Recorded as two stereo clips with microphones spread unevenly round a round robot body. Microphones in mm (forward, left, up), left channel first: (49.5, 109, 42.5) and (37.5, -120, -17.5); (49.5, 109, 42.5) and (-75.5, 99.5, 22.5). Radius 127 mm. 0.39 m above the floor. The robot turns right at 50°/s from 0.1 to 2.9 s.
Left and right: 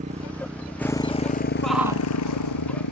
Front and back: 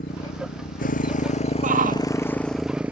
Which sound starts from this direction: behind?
A shout, at 1.6 s.